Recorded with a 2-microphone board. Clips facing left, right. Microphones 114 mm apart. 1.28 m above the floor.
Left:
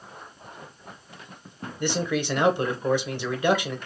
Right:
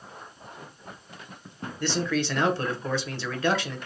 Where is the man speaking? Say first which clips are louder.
Left 1 dB; 15° left (ahead or behind), 0.8 m.